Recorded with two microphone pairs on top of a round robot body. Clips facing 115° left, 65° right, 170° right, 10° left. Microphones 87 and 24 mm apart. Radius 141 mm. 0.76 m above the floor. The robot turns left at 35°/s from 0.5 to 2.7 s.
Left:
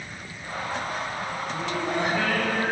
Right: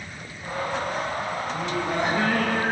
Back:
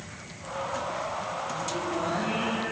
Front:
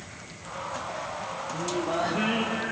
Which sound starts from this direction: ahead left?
Singing, at 1.5 s.